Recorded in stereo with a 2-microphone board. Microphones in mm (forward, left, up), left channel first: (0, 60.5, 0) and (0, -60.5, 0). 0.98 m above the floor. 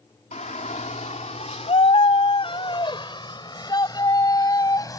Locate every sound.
0.3 s a shout: 75° left (ahead or behind); by 5.0 s 30° left (ahead or behind)